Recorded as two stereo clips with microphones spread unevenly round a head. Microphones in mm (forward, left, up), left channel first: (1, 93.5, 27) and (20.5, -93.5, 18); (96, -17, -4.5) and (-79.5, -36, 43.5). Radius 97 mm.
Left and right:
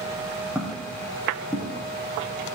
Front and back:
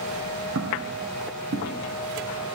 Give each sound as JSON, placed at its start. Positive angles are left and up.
{"t": 0.6, "sound": "footsteps", "azimuth_deg": -170, "distance_m": 4.5}